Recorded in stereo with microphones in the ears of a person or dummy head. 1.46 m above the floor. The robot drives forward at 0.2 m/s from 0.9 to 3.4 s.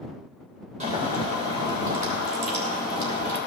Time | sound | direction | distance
0.8 | boiling | 40° right (ahead or behind) | 1.7 m